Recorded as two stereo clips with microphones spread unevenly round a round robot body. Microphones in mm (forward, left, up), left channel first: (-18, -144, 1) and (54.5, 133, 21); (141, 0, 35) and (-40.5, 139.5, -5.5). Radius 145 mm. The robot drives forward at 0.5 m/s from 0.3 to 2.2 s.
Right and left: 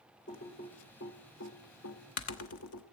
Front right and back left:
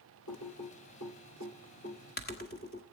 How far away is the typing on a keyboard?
About 1.4 m.